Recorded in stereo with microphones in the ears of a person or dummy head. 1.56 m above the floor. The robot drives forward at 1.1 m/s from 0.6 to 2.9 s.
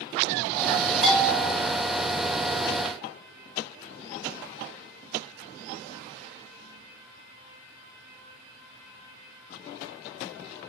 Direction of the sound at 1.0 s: 45° right (ahead or behind).